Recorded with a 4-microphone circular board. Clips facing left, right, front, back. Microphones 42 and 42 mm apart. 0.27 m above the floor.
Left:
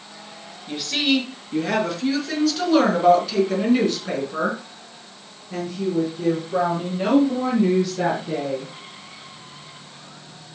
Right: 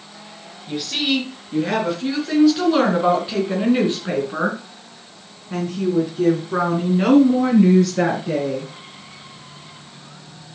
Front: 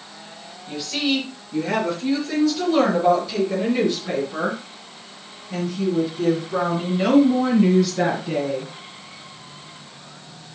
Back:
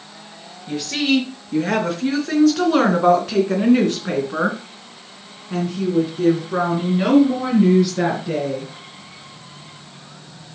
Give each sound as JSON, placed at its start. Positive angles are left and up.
{"t": 0.7, "sound": "a woman speaking", "azimuth_deg": 175, "distance_m": 4.0}